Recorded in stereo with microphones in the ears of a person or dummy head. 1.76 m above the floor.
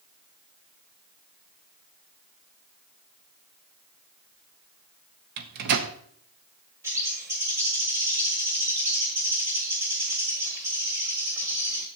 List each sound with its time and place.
5.4 s a microwave: 55° right (ahead or behind), 0.8 m
6.8 s a bird: 15° right (ahead or behind), 1.5 m